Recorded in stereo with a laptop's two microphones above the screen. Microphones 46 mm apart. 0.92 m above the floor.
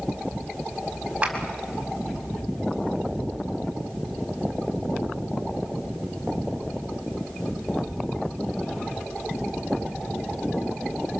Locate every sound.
1.2 s a clap: 25° right (ahead or behind), 4 m